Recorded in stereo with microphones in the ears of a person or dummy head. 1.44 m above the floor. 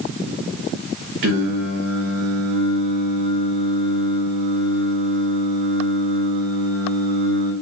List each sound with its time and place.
1.2 s singing: 65° right (ahead or behind), 0.9 m